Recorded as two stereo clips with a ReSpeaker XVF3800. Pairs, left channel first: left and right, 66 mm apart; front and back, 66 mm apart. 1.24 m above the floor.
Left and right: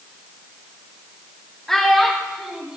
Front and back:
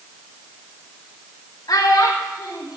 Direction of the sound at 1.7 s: 5° left.